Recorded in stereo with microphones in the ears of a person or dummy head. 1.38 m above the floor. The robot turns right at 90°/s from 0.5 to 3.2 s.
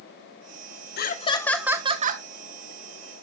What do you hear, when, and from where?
1.0 s laughter: 125° left, 1.2 m; by 2.2 s 120° right, 1.2 m